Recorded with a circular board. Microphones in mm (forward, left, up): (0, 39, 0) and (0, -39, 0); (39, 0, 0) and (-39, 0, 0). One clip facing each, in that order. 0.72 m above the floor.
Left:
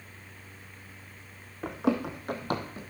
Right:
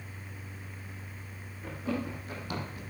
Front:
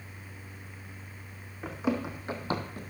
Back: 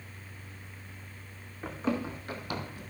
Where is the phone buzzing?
No phone buzzing in this recording.